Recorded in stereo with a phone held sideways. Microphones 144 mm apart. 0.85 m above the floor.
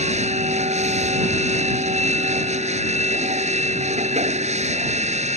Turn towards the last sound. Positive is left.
turn(degrees=-50)  # may be behind; listen again after turning